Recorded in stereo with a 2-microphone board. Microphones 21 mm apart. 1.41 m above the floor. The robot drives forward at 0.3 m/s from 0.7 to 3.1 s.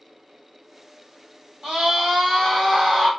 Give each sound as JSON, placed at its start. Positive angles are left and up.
{"t": 1.6, "sound": "a scream", "side_deg": -60, "distance_m": 1.5}